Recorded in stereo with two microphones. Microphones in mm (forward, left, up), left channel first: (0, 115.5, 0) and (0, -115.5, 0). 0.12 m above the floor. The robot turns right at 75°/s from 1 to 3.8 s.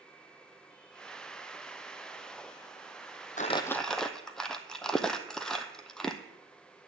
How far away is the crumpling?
About 0.7 m.